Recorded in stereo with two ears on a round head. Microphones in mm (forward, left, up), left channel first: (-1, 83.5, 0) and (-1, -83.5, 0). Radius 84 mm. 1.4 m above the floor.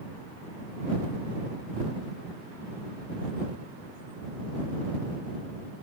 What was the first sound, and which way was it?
Only background noise.